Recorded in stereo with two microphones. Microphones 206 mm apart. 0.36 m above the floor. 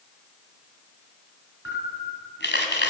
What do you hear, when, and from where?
1.6 s a camera shutter: 65° left (ahead or behind), 2.5 m